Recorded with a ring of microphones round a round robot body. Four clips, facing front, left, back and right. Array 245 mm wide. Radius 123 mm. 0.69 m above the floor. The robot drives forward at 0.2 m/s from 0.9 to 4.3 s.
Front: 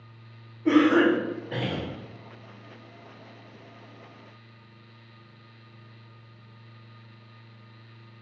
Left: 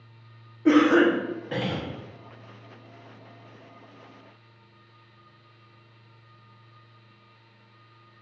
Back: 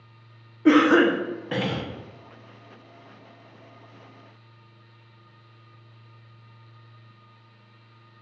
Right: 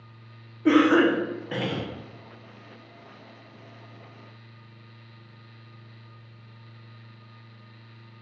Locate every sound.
0.7 s a cough: 170° right, 0.6 m; by 1.9 s 175° right, 0.8 m